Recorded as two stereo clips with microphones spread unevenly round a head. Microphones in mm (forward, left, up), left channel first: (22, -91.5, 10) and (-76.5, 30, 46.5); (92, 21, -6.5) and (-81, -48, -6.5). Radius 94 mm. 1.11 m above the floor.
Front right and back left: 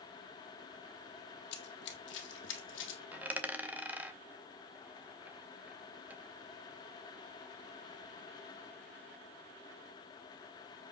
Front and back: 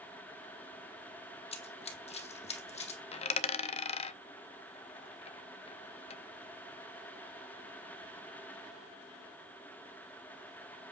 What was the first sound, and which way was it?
Running footsteps, 25° right.